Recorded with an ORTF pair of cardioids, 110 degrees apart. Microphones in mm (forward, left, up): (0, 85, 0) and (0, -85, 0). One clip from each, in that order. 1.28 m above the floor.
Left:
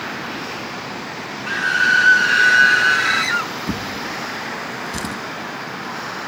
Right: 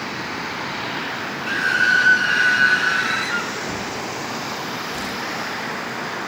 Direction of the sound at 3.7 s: 60° left.